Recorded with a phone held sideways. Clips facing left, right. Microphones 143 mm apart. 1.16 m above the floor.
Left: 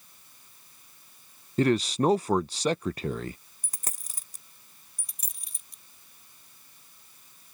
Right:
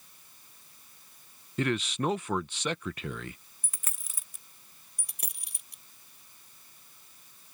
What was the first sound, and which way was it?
A man speaking, 35° left (ahead or behind).